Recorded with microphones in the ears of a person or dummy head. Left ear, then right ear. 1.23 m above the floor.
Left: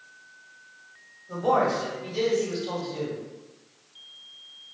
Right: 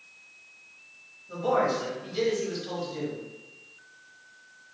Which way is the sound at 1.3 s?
10° right (ahead or behind).